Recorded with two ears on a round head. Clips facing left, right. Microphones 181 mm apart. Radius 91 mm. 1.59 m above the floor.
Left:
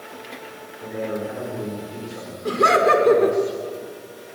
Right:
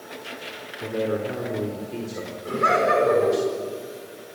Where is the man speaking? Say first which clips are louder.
Right 2 dB; 40° right (ahead or behind), 4.5 m.